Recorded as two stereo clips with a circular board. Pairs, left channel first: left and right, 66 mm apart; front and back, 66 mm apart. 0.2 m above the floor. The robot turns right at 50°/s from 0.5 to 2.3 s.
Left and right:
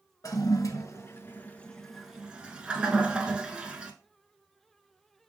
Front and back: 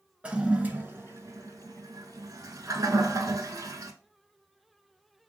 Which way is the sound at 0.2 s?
110° left.